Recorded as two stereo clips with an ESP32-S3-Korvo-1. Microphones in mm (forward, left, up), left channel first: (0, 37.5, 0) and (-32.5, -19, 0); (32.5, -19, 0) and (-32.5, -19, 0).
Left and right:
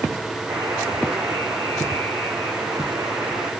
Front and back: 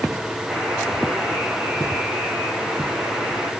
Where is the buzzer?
100° right, 5.5 m.